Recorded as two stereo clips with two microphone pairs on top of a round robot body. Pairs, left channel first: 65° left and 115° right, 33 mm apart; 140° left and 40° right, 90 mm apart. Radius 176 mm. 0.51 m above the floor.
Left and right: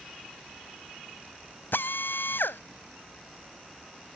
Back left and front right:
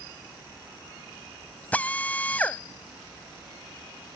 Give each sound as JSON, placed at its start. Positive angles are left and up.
{"t": 1.7, "sound": "a drill", "azimuth_deg": 70}